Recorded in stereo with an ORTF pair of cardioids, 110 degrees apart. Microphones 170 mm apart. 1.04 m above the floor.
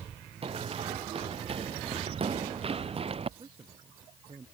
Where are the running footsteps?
35° right.